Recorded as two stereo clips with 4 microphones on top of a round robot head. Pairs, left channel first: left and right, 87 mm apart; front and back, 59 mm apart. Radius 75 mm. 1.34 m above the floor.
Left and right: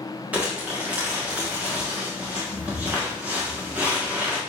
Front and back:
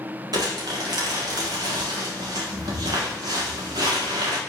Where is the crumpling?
170° right, 1.3 m.